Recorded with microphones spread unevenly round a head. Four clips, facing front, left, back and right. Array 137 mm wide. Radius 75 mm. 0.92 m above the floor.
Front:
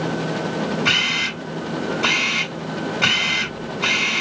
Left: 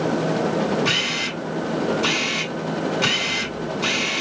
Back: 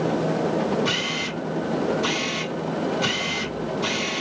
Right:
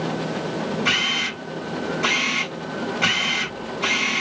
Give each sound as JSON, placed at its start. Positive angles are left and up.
{"t": 0.8, "sound": "a camera shutter", "azimuth_deg": -20, "distance_m": 3.5}